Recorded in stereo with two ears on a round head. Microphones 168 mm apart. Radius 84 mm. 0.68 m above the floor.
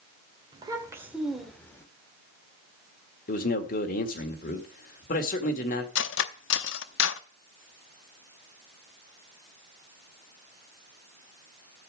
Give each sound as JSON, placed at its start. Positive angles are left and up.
{"t": 0.5, "sound": "a child speaking", "side_deg": -20, "distance_m": 2.5}
{"t": 3.3, "sound": "a man speaking", "side_deg": 45, "distance_m": 1.8}
{"t": 6.0, "sound": "cutlery clinking", "side_deg": 65, "distance_m": 0.8}